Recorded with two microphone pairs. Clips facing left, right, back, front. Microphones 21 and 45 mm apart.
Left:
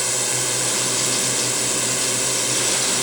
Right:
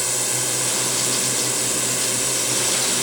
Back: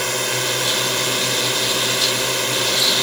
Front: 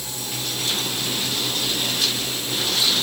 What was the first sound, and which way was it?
A drone, 175° left.